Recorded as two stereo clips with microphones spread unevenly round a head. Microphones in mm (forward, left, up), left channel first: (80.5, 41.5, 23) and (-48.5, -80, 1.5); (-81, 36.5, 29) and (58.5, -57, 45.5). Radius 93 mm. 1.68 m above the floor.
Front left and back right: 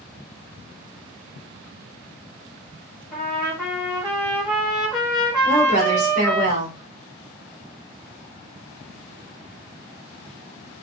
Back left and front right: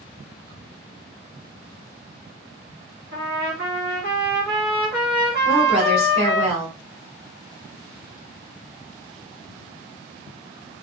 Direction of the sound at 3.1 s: 45° right.